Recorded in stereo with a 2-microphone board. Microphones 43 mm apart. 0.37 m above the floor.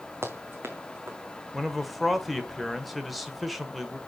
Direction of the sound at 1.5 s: Centre (ahead or behind).